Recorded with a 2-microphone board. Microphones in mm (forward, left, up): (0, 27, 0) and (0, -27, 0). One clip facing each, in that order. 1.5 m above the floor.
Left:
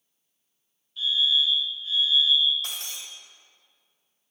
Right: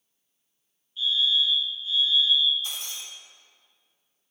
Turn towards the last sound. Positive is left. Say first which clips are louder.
# even
turn(degrees=80)